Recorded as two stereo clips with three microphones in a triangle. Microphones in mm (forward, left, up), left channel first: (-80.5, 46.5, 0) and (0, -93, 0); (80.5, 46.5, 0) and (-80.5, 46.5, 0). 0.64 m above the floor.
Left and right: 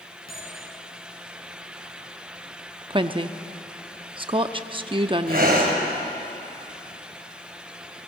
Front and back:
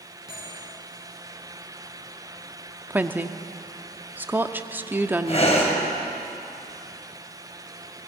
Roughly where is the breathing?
Ahead right.